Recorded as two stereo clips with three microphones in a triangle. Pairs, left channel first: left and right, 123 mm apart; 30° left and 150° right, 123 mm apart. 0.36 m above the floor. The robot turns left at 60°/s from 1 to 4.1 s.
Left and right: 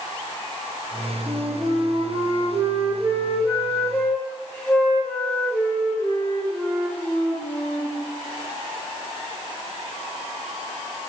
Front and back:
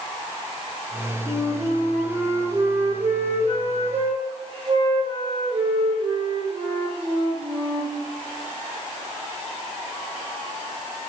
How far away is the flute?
About 9 m.